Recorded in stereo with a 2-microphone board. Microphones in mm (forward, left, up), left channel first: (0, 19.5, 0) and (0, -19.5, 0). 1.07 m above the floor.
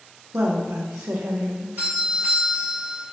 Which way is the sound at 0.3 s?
75° right (ahead or behind).